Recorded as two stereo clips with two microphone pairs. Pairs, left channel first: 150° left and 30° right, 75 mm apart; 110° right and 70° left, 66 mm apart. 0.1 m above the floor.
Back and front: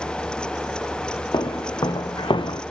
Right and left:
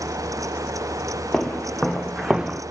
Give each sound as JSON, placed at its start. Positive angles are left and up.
{"t": 1.3, "sound": "footsteps", "azimuth_deg": 170, "distance_m": 1.3}